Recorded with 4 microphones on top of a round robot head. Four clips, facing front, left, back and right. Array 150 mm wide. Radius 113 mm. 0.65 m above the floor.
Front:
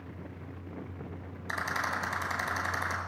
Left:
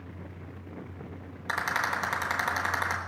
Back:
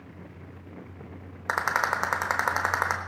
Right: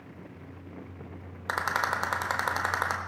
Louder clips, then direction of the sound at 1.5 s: Right 1 dB, back 7 dB; 155° right.